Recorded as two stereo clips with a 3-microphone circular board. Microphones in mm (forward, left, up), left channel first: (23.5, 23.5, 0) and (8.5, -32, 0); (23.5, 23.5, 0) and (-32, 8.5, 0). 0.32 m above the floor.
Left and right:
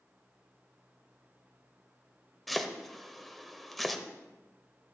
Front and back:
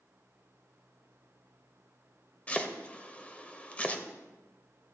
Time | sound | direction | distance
2.5 | chopping | 15° right | 1.0 m